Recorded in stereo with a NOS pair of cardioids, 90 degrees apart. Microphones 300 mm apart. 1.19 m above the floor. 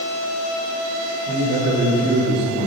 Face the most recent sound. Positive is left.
turn(degrees=-30)